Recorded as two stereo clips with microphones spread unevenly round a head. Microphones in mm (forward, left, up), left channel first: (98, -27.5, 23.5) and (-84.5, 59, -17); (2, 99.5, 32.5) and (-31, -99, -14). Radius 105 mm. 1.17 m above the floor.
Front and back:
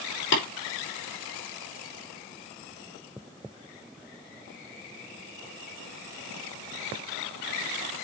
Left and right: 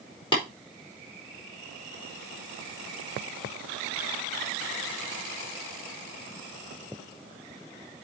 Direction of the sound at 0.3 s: 10° left.